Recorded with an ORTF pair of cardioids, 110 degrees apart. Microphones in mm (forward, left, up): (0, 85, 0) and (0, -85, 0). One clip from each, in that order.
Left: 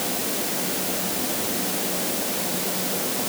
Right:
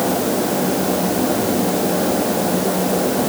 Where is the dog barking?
I don't hear a dog barking.